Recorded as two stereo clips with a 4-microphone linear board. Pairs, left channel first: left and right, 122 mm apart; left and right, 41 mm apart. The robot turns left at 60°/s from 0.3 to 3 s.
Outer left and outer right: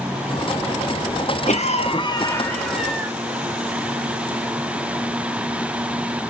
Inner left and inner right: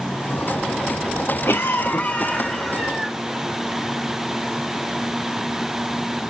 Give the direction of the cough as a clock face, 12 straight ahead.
9 o'clock.